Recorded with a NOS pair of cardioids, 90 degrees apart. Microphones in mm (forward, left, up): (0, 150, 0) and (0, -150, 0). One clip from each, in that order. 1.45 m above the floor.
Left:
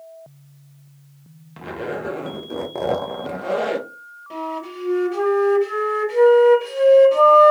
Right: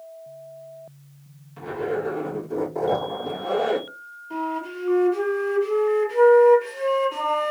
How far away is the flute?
About 3 m.